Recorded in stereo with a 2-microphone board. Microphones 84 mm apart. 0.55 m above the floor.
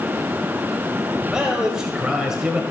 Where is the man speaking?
10° right (ahead or behind), 2.5 m.